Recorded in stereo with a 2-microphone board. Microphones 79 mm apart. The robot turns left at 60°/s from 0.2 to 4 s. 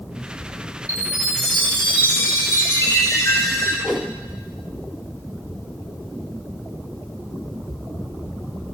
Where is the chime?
140° right, 1.8 m; by 3.7 s 50° left, 1.8 m.